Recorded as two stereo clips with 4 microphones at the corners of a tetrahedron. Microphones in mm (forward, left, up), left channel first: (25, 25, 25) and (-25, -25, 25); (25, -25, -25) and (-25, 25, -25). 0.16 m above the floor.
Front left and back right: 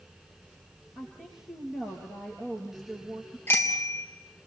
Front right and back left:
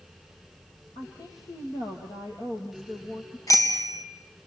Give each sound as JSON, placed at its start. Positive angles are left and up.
{"t": 0.9, "sound": "a woman speaking", "azimuth_deg": -45, "distance_m": 3.5}
{"t": 3.5, "sound": "a bicycle bell", "azimuth_deg": -10, "distance_m": 2.5}